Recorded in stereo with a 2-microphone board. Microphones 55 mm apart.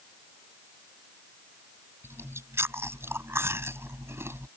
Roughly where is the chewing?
Right.